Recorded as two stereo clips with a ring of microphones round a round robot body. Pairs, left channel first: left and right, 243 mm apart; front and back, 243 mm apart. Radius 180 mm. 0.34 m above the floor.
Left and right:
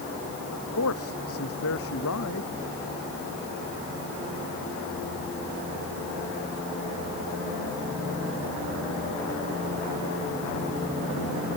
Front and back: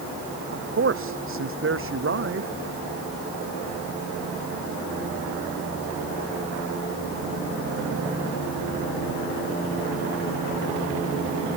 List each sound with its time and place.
0.5 s a man speaking: 140° left